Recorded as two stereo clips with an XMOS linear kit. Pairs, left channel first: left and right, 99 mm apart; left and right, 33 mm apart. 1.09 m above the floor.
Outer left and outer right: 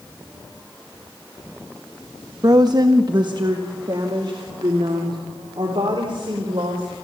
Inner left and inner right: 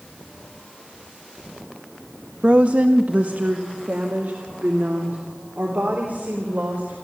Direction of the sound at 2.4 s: 40° right (ahead or behind).